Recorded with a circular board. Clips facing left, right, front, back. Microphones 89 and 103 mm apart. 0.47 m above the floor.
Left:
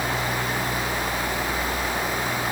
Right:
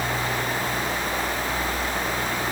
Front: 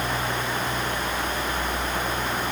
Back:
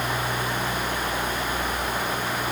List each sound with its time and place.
Only background noise.